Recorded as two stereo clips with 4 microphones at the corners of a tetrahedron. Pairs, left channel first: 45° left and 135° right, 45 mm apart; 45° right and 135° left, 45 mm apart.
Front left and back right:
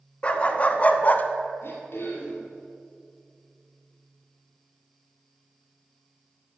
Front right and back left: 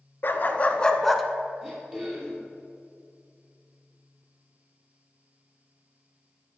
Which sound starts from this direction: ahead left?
Throat clearing, at 1.6 s.